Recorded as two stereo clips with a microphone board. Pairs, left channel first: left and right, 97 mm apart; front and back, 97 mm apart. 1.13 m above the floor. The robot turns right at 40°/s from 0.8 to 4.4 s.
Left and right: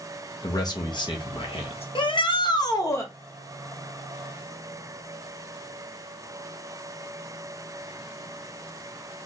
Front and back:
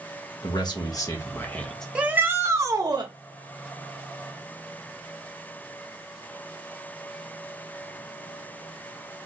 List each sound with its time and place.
0.4 s a man speaking: 45° left, 1.3 m; by 1.9 s 85° left, 1.3 m
1.9 s a shout: 100° left, 1.2 m; by 3.1 s 150° left, 1.2 m